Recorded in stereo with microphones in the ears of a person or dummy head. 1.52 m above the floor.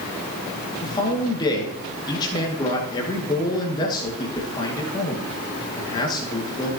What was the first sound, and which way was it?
A man speaking, 25° left (ahead or behind).